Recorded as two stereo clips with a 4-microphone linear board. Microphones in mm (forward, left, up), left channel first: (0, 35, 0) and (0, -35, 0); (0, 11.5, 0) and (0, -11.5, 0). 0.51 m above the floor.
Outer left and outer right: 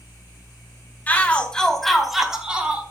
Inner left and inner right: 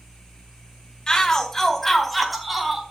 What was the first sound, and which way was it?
A shout, 20° left (ahead or behind).